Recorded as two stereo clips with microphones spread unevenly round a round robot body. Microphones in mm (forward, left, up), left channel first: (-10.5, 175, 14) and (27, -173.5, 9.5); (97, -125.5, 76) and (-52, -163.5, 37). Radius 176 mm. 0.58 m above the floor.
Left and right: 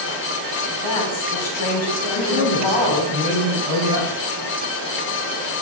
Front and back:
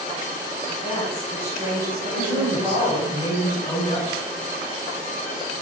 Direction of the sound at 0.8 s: 95° left.